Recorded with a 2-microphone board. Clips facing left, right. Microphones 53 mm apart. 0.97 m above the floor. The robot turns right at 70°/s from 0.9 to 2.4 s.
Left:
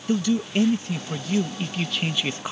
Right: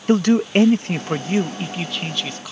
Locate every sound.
0.1 s a man speaking: 70° right; by 2.5 s 35° left